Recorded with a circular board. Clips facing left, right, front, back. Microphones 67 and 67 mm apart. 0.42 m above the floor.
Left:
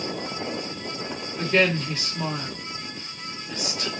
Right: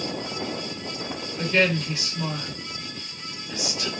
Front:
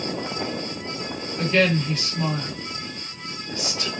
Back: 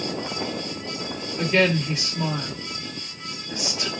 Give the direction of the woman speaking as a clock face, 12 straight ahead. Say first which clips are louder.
Left 1 dB, even; 9 o'clock.